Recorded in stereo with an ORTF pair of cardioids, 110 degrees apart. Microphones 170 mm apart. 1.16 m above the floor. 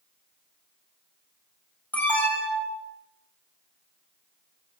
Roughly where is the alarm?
Ahead.